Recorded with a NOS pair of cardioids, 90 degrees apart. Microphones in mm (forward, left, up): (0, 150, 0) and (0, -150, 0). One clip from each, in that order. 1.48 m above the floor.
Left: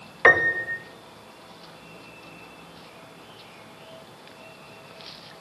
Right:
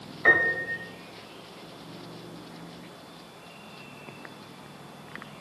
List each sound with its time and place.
0.2 s a piano: 65° left, 0.8 m